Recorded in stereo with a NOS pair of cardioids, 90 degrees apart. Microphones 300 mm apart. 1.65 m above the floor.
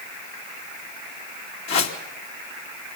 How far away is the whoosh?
About 3 m.